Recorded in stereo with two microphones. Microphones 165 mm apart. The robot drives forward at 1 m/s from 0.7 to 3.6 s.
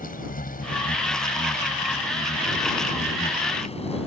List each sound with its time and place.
0.0 s an insect: 60° left (ahead or behind); by 4.1 s 40° left (ahead or behind)